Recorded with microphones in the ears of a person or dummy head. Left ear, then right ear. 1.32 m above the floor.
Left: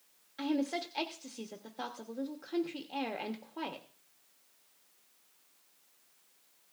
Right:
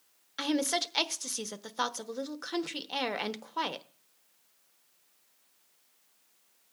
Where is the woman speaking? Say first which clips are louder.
Right 4 dB; 55° right (ahead or behind), 1.0 m.